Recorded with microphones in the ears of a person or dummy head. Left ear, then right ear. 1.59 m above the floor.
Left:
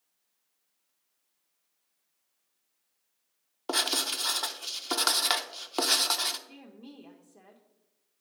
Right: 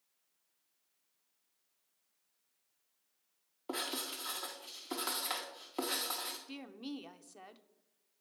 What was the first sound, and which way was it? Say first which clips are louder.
Writing: left 11 dB; 50° left (ahead or behind).